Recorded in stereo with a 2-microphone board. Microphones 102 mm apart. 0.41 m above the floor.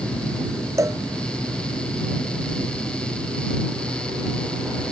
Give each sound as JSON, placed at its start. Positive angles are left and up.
{"t": 0.8, "sound": "a cowbell", "side_deg": -30}